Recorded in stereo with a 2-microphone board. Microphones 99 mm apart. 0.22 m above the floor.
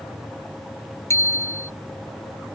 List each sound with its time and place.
1.1 s a bicycle bell: 30° left (ahead or behind)